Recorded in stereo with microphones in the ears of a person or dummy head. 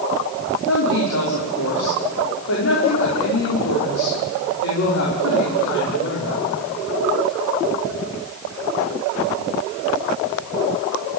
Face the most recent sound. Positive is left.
turn(degrees=80)